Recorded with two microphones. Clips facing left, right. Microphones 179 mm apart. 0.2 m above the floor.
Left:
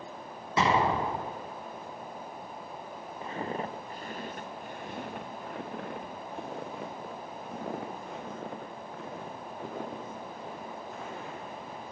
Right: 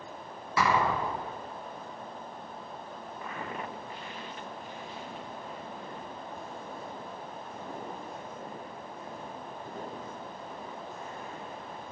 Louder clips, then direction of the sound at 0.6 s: Left 1 dB; 25° left (ahead or behind).